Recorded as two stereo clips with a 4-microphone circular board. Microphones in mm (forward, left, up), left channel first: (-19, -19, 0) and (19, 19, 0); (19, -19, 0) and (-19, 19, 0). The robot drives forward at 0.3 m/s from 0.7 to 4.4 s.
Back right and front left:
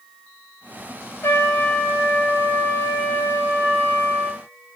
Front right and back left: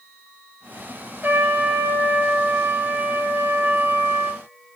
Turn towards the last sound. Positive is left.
turn(degrees=-175)